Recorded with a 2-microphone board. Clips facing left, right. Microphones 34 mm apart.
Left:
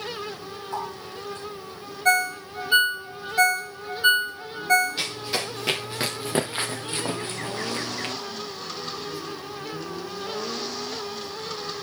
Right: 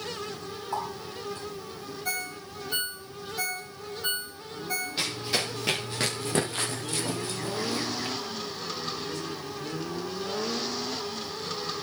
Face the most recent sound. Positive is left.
turn(degrees=55)  # may be behind; listen again after turning